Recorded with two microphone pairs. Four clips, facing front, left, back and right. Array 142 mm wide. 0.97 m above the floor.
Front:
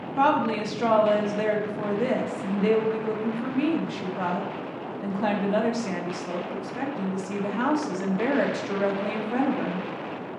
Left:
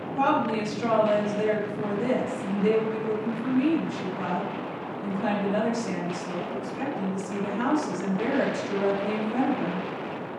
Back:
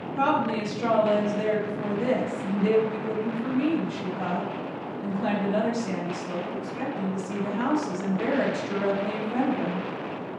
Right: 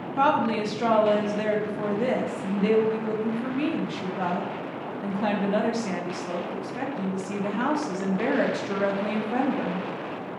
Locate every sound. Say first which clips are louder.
0.2 s a woman speaking: right 2 dB, front 2 dB; 30° right, 0.6 m